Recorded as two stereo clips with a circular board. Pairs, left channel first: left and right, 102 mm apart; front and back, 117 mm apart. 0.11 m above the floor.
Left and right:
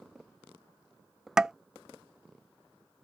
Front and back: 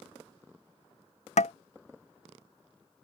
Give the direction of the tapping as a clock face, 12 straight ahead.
12 o'clock.